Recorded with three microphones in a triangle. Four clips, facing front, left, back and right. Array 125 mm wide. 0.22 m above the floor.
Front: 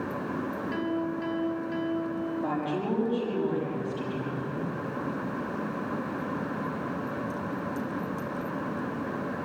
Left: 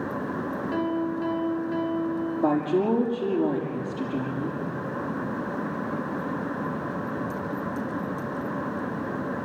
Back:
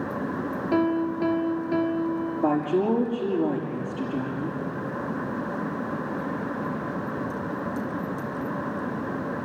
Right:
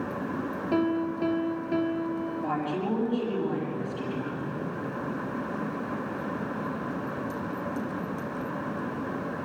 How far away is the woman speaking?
About 5.5 m.